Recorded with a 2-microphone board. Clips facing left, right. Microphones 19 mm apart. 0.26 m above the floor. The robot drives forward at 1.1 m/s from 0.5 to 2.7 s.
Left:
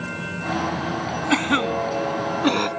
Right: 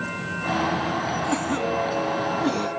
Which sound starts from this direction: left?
A cough, at 1.3 s.